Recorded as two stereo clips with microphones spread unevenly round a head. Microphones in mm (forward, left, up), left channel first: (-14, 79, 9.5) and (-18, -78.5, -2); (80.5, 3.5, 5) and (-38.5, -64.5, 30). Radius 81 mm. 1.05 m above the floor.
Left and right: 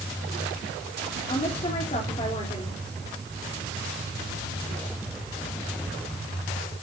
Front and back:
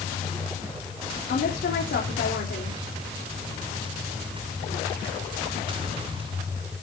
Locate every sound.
1.3 s a woman speaking: 30° left, 3 m